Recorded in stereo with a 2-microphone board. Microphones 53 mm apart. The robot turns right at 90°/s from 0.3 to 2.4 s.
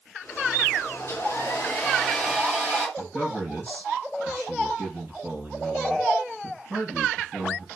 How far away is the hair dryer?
About 3 m.